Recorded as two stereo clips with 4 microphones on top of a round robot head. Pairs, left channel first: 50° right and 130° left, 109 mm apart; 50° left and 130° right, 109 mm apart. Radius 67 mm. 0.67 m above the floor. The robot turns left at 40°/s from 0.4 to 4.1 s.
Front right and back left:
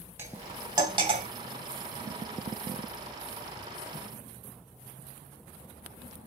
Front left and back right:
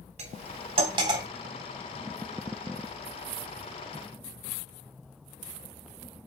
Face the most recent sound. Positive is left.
turn(degrees=50)